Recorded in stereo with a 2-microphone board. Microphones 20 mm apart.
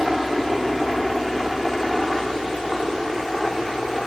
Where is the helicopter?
5° right (ahead or behind); by 4.1 s 5° left (ahead or behind).